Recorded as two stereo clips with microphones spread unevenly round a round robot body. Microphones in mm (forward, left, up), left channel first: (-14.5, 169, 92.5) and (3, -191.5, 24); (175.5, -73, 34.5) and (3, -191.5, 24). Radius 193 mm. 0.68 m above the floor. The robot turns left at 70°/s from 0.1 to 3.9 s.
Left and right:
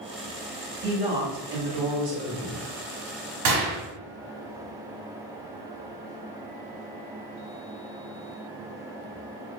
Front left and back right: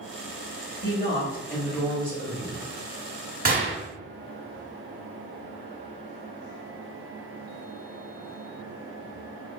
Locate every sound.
0.8 s a woman speaking: 5° left, 1.3 m; by 2.7 s 125° right, 1.3 m
3.5 s a gunshot: 100° right, 1.2 m; by 3.8 s 120° right, 1.2 m